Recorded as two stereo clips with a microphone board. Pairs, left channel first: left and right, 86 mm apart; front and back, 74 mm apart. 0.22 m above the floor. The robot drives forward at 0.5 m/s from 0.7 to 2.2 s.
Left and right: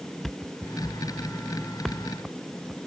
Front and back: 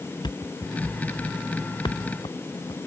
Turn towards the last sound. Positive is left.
turn(degrees=5)